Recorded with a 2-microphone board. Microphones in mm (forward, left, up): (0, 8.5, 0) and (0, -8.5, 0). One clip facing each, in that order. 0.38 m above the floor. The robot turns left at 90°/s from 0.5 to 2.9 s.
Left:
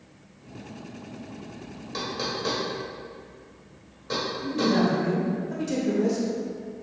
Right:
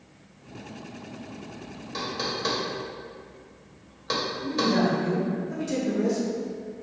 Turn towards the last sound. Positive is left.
turn(degrees=10)  # may be behind; listen again after turning